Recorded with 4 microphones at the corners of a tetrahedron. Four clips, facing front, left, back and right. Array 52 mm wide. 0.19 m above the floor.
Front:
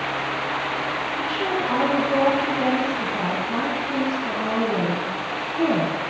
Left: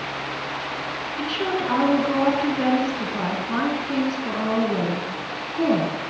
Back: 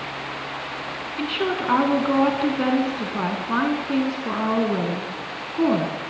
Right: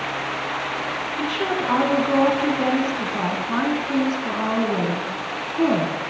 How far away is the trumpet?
No trumpet in this recording.